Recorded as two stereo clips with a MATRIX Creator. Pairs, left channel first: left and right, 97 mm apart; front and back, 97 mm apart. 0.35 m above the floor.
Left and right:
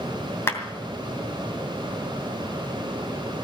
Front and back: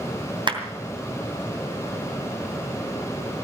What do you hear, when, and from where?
0.5 s a clap: 155° left, 2.5 m